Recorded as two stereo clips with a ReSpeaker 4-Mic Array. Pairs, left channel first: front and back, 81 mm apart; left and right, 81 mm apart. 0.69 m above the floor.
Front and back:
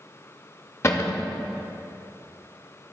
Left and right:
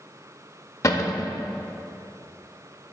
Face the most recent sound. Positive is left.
turn(degrees=45)